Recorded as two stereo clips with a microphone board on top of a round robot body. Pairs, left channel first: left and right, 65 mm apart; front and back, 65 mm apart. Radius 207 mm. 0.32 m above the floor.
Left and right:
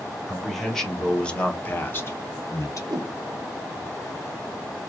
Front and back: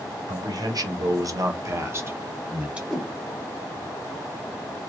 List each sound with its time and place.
0.3 s a man speaking: straight behind, 2 m; by 2.8 s 110° left, 1.7 m
2.9 s a whoosh: 90° right, 1.5 m